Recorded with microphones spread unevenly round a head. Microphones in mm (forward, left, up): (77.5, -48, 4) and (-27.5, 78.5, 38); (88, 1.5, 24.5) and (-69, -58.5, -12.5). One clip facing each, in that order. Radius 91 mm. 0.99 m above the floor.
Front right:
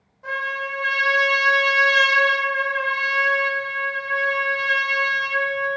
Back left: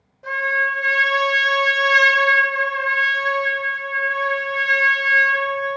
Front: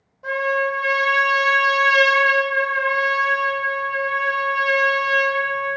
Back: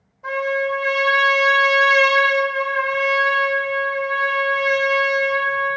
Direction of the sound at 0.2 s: 80° left.